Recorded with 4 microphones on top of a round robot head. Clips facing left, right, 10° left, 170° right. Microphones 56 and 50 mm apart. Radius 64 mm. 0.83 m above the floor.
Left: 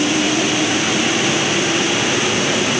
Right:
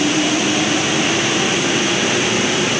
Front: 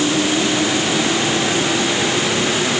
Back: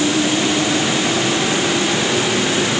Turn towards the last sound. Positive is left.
No sound to turn to.